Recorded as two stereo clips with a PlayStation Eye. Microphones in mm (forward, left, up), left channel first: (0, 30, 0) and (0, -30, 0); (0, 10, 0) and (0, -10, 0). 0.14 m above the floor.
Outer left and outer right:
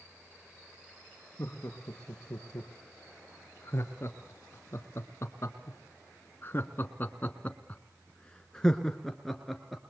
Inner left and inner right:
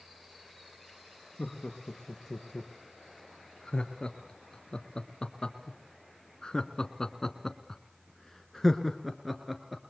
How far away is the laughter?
About 3.5 m.